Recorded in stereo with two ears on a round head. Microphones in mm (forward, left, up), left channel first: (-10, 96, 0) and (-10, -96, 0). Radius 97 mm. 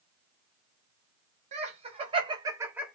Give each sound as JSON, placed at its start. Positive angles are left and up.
{"t": 1.5, "sound": "laughter", "side_deg": -35, "distance_m": 1.1}